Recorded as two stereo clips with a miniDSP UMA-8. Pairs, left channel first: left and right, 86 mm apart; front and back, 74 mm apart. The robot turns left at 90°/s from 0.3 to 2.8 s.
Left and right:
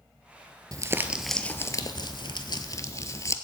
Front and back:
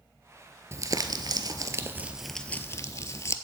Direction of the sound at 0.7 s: 130° right.